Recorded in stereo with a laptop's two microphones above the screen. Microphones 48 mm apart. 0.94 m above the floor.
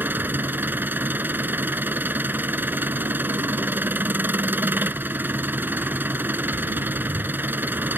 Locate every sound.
0.0 s an engine running: 45° right (ahead or behind)